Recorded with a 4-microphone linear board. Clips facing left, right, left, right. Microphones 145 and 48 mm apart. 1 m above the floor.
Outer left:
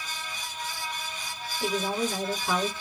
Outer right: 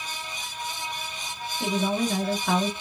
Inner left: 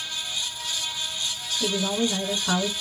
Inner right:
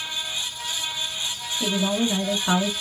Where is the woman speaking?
70° right (ahead or behind), 1.4 m.